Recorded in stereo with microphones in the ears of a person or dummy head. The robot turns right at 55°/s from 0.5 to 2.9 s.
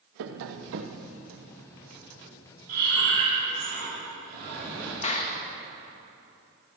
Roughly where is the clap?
Left.